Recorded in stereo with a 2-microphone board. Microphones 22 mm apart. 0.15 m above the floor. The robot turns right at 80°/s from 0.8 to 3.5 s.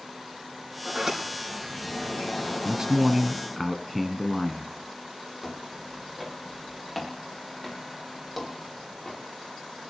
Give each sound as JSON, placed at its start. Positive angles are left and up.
{"t": 0.8, "sound": "a sliding door", "azimuth_deg": -40, "distance_m": 4.5}
{"t": 2.6, "sound": "a man speaking", "azimuth_deg": -75, "distance_m": 1.4}
{"t": 5.4, "sound": "footsteps", "side_deg": -20, "distance_m": 6.0}